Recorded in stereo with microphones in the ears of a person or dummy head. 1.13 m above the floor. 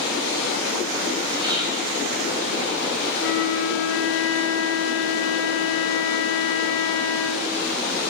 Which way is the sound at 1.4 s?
30° right (ahead or behind).